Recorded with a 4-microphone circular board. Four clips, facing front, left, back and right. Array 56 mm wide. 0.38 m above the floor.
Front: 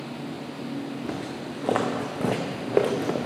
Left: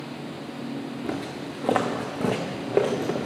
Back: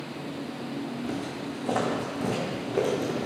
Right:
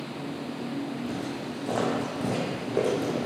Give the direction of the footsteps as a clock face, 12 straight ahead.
10 o'clock.